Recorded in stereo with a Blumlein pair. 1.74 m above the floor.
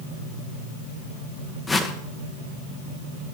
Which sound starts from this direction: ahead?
A whoosh, at 1.7 s.